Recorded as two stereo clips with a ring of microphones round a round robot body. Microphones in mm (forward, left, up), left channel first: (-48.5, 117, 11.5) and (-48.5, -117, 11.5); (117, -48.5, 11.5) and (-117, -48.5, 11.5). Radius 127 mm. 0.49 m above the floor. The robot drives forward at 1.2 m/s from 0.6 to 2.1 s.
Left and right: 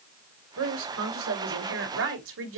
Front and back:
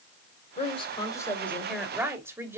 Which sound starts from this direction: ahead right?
A woman speaking, at 0.6 s.